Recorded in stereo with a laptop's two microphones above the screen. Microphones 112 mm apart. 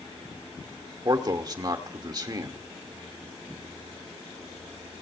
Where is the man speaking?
35° right (ahead or behind), 1.6 m.